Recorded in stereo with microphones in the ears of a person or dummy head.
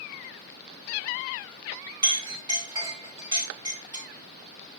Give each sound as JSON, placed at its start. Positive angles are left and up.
{"t": 2.0, "sound": "a clink", "side_deg": -20, "distance_m": 4.0}